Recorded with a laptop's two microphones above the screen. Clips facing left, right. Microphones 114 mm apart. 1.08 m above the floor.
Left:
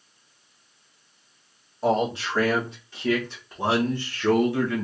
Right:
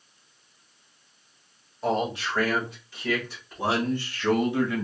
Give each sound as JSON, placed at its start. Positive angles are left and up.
{"t": 1.8, "sound": "a man speaking", "side_deg": 35, "distance_m": 2.5}